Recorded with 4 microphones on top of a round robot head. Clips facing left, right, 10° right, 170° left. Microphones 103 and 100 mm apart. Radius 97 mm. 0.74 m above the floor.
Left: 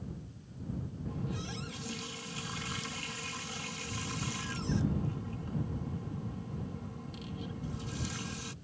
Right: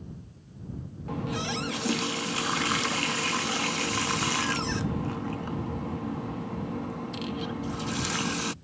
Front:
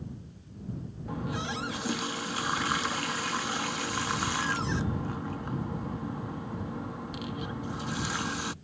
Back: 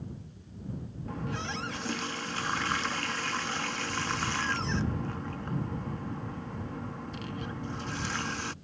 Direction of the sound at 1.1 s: 90° right.